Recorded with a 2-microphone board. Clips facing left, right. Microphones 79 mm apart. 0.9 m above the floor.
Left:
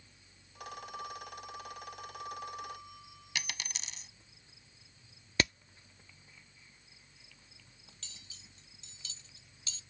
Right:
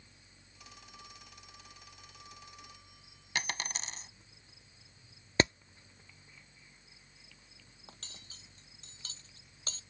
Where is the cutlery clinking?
45° right (ahead or behind).